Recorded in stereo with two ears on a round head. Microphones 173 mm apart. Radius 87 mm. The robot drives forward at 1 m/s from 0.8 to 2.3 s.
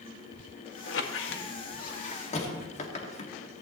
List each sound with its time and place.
0.9 s a squeak: 65° left (ahead or behind), 1.0 m; by 3.3 s 35° left (ahead or behind), 1.5 m